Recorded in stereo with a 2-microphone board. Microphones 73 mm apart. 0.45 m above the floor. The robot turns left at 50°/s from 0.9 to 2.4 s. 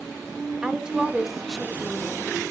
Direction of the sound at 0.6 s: 160° right.